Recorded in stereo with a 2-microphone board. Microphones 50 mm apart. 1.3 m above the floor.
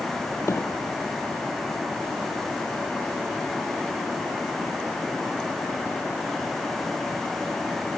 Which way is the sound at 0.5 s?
65° left (ahead or behind).